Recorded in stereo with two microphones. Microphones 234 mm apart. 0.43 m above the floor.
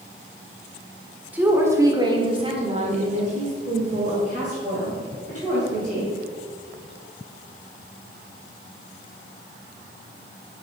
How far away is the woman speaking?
About 1.5 m.